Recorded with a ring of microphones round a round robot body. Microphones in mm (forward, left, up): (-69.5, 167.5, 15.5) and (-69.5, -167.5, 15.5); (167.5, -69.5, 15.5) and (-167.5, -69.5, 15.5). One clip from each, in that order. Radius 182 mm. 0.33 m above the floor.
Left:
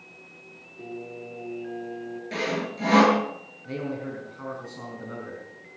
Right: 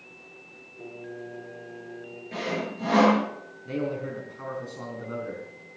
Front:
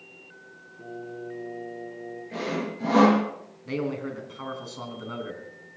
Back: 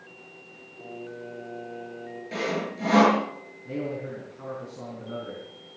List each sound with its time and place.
0.8 s singing: 150° left, 4 m
2.3 s sawing: 125° left, 8 m
3.6 s a man speaking: straight ahead, 4 m